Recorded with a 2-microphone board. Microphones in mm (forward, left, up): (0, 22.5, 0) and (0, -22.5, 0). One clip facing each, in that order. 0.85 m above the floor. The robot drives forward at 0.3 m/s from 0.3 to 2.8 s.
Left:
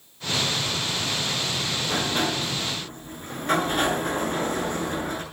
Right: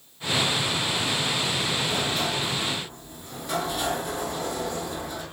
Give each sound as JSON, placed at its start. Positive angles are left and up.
{"t": 1.8, "sound": "a sliding door", "side_deg": 45, "distance_m": 6.0}